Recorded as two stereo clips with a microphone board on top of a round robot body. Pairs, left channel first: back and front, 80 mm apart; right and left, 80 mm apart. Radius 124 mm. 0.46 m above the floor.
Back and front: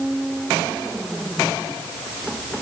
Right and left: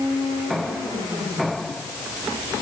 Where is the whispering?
No whispering in this recording.